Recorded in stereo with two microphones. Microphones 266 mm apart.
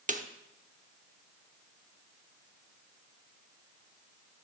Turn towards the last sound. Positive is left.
turn(degrees=-30)  # may be behind; listen again after turning